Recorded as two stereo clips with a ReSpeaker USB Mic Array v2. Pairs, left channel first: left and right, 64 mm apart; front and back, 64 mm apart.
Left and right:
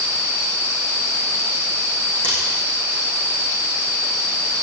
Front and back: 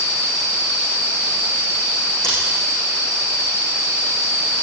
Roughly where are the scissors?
Ahead.